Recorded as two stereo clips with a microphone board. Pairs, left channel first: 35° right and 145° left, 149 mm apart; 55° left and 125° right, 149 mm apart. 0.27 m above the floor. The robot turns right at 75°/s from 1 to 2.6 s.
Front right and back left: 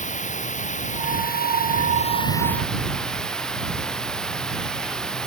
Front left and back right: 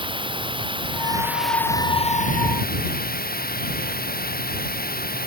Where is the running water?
70° right; by 5.3 s 50° left.